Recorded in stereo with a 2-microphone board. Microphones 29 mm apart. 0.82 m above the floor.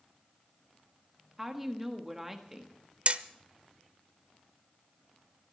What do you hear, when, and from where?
1.4 s a woman speaking: 10° right (ahead or behind), 1.5 m
3.1 s hammering: 45° right (ahead or behind), 0.7 m